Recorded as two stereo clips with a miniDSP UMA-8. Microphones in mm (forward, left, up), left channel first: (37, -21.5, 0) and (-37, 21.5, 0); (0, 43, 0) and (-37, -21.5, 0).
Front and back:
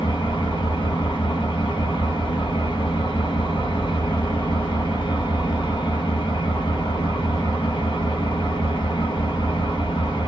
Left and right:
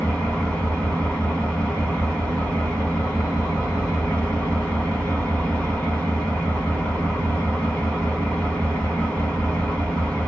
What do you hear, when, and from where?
0.0 s an engine running: 10° right, 1.3 m